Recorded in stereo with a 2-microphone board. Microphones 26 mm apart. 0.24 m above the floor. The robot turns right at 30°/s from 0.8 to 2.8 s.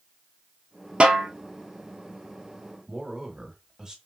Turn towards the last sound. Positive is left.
turn(degrees=-25)  # may be behind; listen again after turning